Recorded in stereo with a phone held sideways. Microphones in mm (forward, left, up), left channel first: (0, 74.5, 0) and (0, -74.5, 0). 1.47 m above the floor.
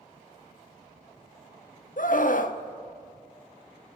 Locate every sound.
2.0 s a scream: 65° left (ahead or behind), 0.6 m